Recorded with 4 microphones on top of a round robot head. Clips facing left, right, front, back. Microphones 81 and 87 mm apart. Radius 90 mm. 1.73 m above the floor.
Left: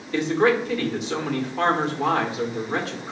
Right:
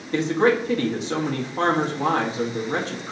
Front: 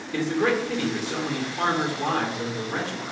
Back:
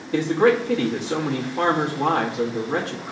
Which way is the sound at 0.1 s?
145° right.